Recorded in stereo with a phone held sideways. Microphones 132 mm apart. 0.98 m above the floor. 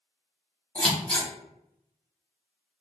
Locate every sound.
0.8 s scissors: 10° left (ahead or behind), 1.2 m